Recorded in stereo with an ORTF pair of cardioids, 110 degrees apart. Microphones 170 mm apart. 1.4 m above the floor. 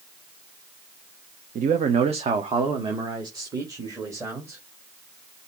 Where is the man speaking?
55° right, 0.9 m; by 4.6 s 15° right, 2.5 m.